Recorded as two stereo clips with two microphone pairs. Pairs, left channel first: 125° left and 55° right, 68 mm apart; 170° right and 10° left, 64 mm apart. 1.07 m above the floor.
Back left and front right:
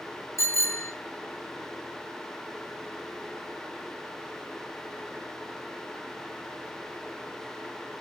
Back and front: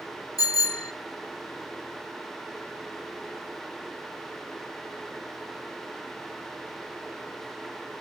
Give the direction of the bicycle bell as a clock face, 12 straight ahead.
6 o'clock.